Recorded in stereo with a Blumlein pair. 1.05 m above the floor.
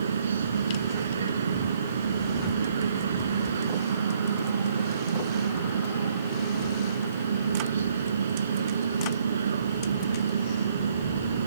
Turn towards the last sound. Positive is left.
turn(degrees=-70)